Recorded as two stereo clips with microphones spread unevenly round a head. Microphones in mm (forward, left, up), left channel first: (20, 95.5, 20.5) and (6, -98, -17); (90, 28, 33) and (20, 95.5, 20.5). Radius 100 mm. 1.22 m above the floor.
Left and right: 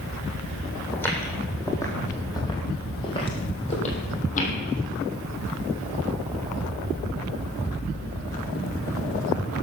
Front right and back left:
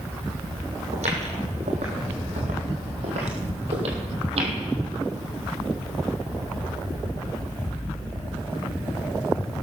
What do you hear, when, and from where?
0.9 s footsteps: 160° left, 4 m; by 4.5 s 130° left, 3 m